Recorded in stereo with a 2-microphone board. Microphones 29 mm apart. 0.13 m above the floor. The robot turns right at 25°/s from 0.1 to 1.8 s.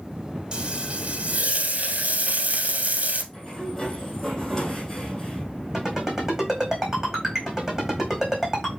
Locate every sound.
0.5 s frying: 145° right, 1.4 m; by 3.2 s 115° right, 1.4 m
3.3 s a sliding door: 10° left (ahead or behind), 2 m
5.7 s a ringtone: 15° right (ahead or behind), 3 m